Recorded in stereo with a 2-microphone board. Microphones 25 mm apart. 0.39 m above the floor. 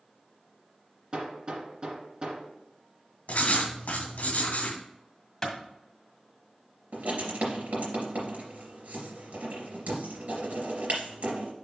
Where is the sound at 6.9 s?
75° right (ahead or behind), 3 m.